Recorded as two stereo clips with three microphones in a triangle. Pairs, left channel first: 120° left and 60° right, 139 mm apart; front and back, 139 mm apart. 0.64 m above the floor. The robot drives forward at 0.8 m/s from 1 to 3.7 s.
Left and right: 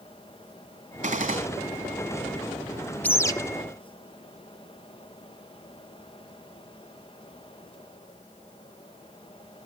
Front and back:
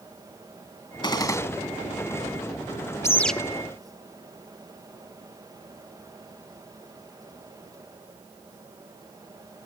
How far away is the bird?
About 0.7 m.